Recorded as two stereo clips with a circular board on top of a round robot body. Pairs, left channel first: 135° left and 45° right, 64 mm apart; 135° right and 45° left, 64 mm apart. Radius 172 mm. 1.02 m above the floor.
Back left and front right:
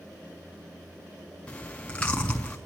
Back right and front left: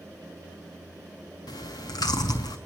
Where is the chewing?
150° right, 0.6 m.